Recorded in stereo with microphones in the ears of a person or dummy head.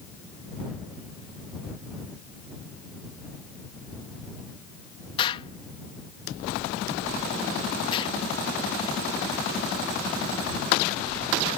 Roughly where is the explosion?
Left.